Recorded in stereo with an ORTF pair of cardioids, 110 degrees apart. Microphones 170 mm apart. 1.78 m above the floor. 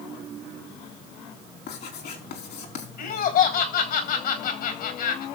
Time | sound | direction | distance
1.7 | writing | 65° left | 4 m
3.0 | laughter | 60° left | 4 m